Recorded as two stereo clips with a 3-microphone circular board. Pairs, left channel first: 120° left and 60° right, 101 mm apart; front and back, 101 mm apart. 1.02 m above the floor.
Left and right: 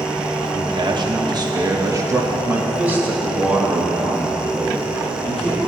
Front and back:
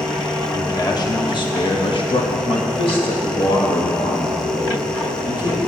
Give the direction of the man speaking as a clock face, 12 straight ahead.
2 o'clock.